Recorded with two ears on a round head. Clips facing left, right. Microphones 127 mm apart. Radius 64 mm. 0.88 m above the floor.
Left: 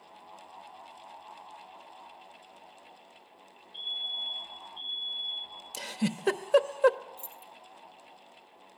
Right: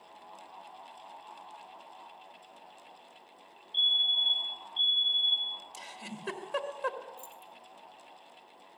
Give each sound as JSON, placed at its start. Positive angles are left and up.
{"t": 3.7, "sound": "a fire alarm", "side_deg": -35, "distance_m": 4.0}
{"t": 5.7, "sound": "a giggle", "side_deg": 65, "distance_m": 1.2}
{"t": 7.2, "sound": "keys jangling", "side_deg": 15, "distance_m": 2.5}